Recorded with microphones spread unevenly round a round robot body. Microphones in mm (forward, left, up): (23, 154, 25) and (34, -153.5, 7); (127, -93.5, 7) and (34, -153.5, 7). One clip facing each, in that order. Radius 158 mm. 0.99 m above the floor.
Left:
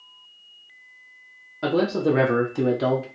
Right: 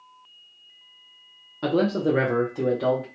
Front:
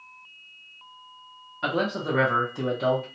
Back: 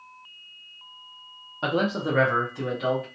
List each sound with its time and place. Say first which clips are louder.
1.6 s a man speaking: left 1 dB, back 1 dB; 155° right, 0.7 m; by 3.1 s 65° left, 0.9 m